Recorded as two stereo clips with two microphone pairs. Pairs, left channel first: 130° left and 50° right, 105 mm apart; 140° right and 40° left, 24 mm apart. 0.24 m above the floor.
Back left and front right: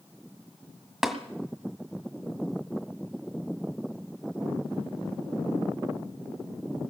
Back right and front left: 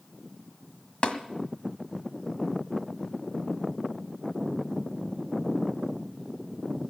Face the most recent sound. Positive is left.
turn(degrees=-135)